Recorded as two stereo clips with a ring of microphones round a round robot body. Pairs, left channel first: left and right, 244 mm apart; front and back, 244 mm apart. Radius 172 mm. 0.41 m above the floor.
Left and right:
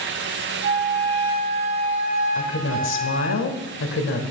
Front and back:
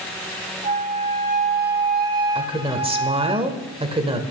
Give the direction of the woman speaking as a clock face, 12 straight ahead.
8 o'clock.